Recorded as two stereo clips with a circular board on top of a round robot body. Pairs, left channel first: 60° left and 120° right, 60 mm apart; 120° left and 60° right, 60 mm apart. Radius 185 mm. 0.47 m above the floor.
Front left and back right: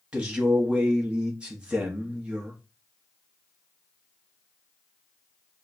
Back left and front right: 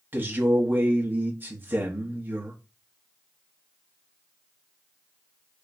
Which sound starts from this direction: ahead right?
A man speaking, at 0.1 s.